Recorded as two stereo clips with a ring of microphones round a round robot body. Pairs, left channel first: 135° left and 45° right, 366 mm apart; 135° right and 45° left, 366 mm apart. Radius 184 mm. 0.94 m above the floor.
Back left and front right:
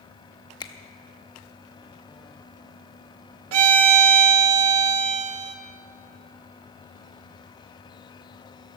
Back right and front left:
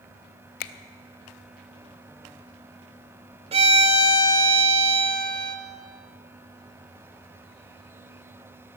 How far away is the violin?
About 1.1 m.